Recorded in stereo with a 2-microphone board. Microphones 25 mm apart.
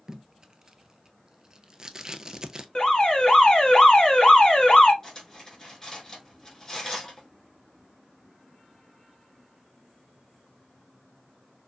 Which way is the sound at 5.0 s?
25° left (ahead or behind).